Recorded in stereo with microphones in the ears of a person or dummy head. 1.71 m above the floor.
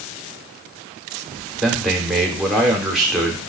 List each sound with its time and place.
1.6 s a man speaking: 5° right (ahead or behind), 0.6 m